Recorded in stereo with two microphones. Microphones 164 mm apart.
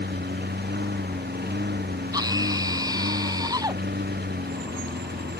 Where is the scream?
25° right (ahead or behind).